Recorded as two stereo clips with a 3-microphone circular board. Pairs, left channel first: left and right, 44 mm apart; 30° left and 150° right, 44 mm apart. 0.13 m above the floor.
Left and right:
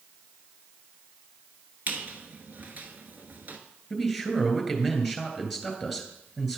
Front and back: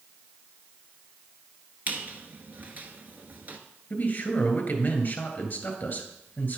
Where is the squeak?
120° right, 1.1 m.